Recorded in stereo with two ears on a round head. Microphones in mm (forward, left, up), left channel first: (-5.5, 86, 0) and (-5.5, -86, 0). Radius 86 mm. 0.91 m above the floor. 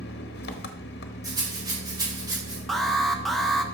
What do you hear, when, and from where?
0.0 s an engine running: 60° left (ahead or behind), 0.9 m
1.2 s a rattle: 20° right (ahead or behind), 3.5 m
2.7 s an alarm: centre (ahead or behind), 0.9 m